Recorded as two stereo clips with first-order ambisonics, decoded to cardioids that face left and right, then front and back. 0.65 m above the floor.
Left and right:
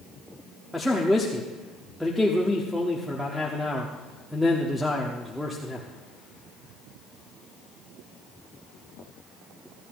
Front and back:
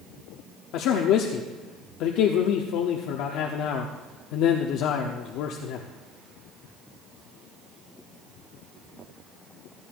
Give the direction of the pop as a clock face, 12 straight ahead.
No pop in this recording.